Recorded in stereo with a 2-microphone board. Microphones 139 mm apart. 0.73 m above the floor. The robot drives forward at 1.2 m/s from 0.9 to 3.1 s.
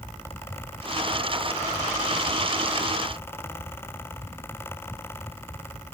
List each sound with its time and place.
Only background noise.